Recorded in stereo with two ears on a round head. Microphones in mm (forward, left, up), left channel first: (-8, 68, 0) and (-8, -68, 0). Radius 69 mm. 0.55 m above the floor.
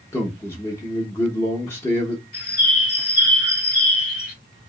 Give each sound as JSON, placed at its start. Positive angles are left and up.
{"t": 0.1, "sound": "a man speaking", "side_deg": 15, "distance_m": 0.7}
{"t": 2.3, "sound": "a bird", "side_deg": 65, "distance_m": 1.6}